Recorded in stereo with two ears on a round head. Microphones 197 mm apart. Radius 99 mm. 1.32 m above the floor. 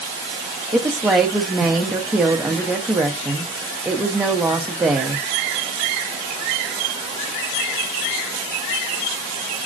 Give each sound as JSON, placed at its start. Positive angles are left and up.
{"t": 0.7, "sound": "a woman speaking", "side_deg": -5, "distance_m": 0.6}